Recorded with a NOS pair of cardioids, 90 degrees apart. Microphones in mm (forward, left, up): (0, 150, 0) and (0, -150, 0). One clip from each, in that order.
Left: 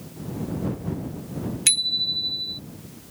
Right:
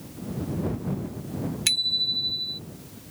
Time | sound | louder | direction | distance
1.7 | a bicycle bell | left 1 dB | 10° left | ?